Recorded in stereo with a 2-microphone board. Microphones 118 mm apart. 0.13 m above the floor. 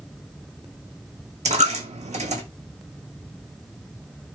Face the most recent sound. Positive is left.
turn(degrees=-80)